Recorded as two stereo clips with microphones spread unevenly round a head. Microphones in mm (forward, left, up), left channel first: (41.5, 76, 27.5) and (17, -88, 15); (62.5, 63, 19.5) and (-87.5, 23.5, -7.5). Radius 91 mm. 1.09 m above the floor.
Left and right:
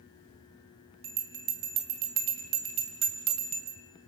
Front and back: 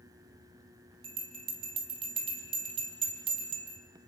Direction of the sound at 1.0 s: 100° right.